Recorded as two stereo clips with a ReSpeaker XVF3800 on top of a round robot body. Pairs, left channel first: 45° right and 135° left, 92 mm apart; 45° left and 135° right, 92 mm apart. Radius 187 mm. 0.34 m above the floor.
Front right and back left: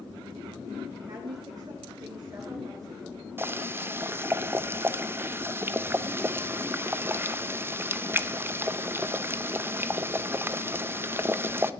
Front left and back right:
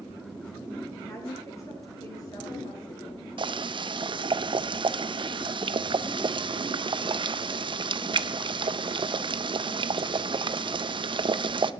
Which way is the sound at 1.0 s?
105° left.